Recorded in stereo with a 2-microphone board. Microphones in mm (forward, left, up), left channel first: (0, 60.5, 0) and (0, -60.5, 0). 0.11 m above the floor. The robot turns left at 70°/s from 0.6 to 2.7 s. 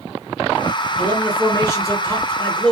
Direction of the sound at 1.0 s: 10° left (ahead or behind).